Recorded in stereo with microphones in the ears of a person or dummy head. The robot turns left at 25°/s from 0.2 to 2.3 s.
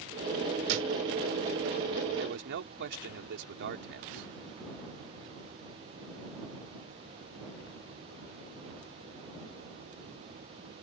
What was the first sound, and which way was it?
A thud, 65° right (ahead or behind).